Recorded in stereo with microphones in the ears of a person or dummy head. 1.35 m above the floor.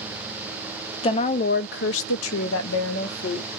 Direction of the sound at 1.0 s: 25° left (ahead or behind).